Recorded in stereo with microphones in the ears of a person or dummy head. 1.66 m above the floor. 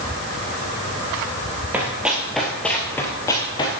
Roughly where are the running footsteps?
Centre.